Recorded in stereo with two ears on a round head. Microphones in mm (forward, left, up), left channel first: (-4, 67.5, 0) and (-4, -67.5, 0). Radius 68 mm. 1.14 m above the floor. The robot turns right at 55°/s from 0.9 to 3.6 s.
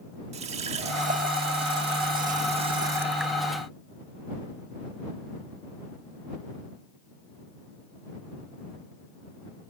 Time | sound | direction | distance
0.3 | a running tap | 45° right (ahead or behind) | ?